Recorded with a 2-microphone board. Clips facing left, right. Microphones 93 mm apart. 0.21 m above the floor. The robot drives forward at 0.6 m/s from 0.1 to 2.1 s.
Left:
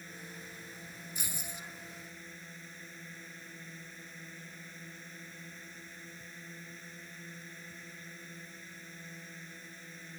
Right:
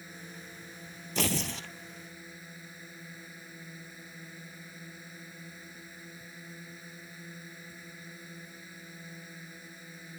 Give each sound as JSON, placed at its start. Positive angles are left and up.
{"t": 0.0, "sound": "a drone", "side_deg": -5}
{"t": 1.1, "sound": "tearing paper", "side_deg": -85}